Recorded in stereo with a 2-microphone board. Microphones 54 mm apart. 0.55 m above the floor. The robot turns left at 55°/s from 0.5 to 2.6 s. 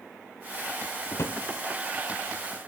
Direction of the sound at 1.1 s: 60° left (ahead or behind).